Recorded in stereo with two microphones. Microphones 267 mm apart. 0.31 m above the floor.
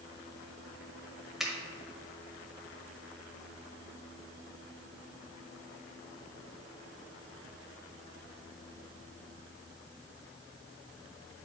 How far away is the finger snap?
About 1.4 m.